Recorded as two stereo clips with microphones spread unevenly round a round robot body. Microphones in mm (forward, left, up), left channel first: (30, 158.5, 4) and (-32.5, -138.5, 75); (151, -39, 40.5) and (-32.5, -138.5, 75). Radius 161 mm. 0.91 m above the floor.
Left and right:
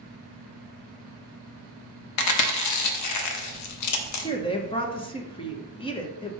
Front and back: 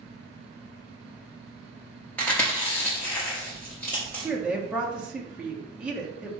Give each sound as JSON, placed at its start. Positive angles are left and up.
{"t": 2.2, "sound": "chewing", "azimuth_deg": 115, "distance_m": 0.8}
{"t": 4.2, "sound": "a woman speaking", "azimuth_deg": 110, "distance_m": 0.9}